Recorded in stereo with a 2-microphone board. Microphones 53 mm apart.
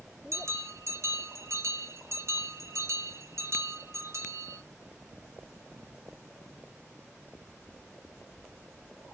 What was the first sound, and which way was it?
A bell, 60° right (ahead or behind).